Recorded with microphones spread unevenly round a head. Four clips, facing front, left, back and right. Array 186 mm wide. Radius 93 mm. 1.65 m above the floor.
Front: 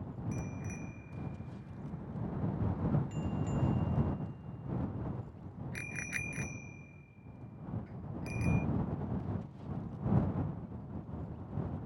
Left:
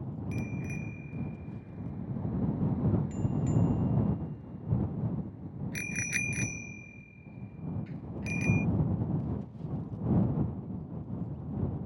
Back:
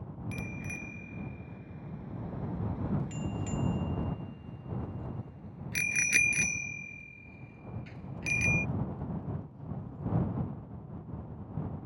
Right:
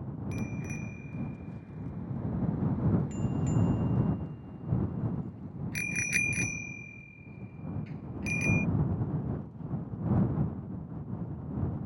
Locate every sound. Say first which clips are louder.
0.3 s a bicycle bell: even, back 2 dB; 160° left; by 8.6 s 165° right